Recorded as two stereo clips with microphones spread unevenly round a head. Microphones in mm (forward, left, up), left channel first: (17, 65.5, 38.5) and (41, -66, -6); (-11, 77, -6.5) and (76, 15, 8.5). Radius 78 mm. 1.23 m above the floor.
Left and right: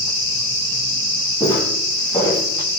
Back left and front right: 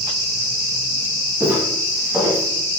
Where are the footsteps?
40° left, 6.5 m.